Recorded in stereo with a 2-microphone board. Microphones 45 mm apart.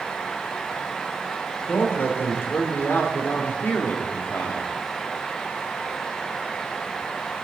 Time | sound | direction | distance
1.7 | a man speaking | 55° left (ahead or behind) | 3 m